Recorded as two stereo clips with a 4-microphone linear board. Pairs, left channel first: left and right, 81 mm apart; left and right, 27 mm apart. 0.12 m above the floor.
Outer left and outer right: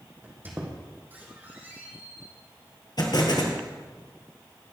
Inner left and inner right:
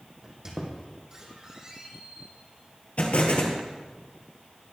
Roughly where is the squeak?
Right.